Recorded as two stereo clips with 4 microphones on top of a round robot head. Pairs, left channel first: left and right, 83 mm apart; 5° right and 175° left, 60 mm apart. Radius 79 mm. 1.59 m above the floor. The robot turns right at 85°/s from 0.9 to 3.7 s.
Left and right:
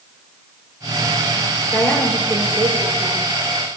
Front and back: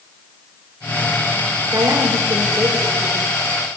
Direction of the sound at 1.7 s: 150° left.